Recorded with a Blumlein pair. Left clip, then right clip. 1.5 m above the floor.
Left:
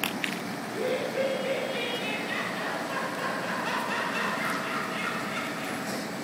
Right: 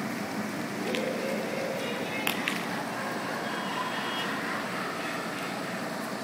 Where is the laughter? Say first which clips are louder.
Left 3 dB; 45° left, 7.5 m.